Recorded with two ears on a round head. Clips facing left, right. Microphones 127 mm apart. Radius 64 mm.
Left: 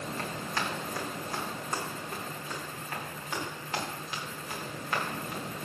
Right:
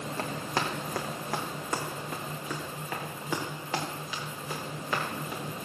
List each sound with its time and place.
0.2 s running footsteps: 30° right (ahead or behind), 1.9 m; by 5.4 s 80° right, 5 m